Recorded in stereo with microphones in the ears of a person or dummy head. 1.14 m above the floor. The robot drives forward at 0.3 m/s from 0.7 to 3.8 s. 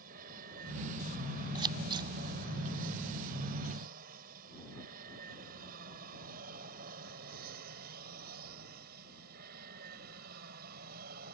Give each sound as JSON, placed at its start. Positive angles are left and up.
{"t": 0.0, "sound": "an aircraft", "side_deg": -45}
{"t": 1.6, "sound": "scissors", "side_deg": -20}